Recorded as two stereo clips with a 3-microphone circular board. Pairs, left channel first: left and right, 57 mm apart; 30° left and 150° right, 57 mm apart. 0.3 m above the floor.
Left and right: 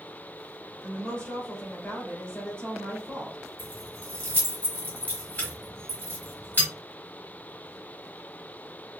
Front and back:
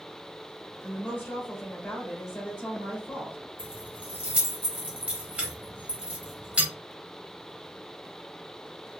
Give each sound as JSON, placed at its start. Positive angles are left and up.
{"t": 0.8, "sound": "a woman speaking", "azimuth_deg": 45, "distance_m": 1.1}
{"t": 3.6, "sound": "keys jangling", "azimuth_deg": 145, "distance_m": 1.1}